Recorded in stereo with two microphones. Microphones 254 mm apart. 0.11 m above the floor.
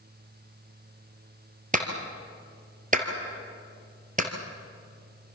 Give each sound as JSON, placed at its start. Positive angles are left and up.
{"t": 1.7, "sound": "a clap", "side_deg": -30, "distance_m": 2.5}